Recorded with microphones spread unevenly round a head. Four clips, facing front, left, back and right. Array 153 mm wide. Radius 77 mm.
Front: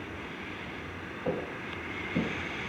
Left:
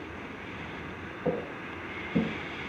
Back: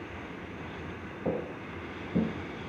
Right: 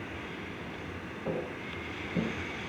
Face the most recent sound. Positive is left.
turn(degrees=125)